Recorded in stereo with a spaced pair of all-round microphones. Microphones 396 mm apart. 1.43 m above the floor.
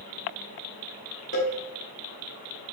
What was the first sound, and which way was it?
A cowbell, 30° left (ahead or behind).